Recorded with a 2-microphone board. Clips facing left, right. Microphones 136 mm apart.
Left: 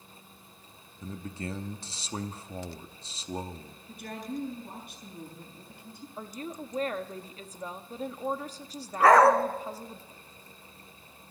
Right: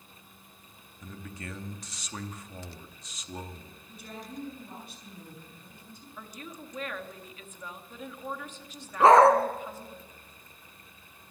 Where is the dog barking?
25° right (ahead or behind), 1.7 m.